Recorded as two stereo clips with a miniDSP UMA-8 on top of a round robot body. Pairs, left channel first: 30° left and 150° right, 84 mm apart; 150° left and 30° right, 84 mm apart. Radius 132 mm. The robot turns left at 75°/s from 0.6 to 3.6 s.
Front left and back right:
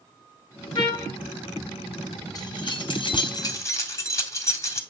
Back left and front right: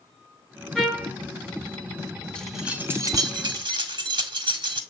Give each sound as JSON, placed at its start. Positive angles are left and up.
{"t": 0.8, "sound": "a trumpet", "azimuth_deg": 70, "distance_m": 3.0}
{"t": 2.4, "sound": "keys jangling", "azimuth_deg": 75, "distance_m": 1.6}